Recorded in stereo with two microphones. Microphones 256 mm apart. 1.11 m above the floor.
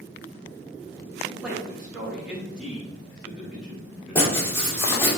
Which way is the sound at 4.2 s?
10° left (ahead or behind).